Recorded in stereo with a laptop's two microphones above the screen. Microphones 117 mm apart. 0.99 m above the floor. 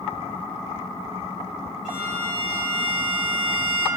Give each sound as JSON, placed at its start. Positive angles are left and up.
{"t": 1.9, "sound": "a violin", "side_deg": -85, "distance_m": 3.0}